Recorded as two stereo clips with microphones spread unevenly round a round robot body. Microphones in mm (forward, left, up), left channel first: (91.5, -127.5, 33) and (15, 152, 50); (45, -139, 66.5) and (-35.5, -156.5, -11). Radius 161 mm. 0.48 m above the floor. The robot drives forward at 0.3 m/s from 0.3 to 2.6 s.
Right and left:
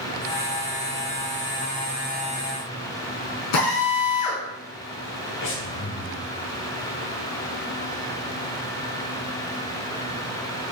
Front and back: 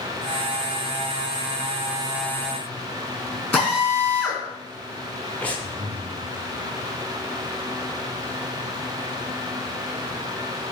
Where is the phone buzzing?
No phone buzzing in this recording.